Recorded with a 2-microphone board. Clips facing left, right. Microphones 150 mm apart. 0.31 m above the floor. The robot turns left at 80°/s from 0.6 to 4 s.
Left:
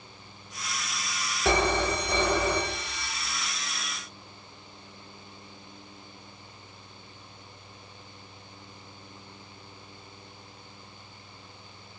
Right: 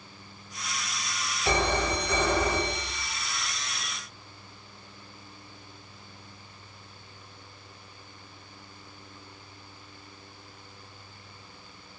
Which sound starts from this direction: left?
A phone ringing, at 1.4 s.